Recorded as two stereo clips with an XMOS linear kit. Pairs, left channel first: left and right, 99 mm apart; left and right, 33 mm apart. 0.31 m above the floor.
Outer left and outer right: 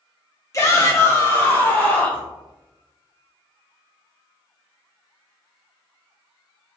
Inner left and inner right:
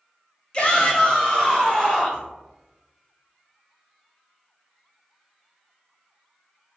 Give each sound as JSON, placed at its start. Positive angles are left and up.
{"t": 0.5, "sound": "a shout", "side_deg": 35, "distance_m": 1.1}